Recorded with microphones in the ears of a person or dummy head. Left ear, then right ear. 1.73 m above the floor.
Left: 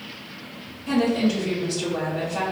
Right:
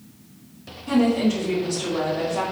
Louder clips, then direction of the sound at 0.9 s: Right 1 dB; 75° left (ahead or behind).